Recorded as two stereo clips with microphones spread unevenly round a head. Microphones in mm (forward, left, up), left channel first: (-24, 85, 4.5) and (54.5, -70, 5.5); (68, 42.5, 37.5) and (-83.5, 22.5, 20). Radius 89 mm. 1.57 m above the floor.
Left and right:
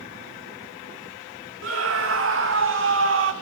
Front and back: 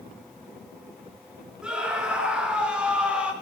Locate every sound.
1.6 s a scream: 85° right, 5 m; by 3.3 s 90° right, 4 m